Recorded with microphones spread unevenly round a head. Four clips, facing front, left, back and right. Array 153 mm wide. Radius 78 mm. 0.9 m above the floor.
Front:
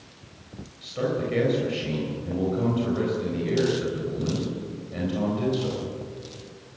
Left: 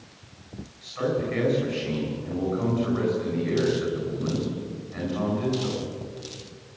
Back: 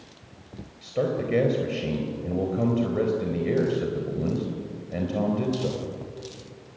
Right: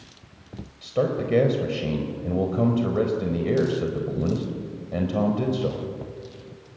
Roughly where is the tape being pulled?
No tape being pulled in this recording.